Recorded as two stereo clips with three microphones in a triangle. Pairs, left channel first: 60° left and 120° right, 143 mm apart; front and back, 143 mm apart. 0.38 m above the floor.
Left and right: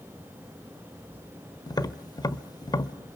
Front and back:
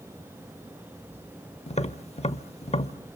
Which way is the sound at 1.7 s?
5° left.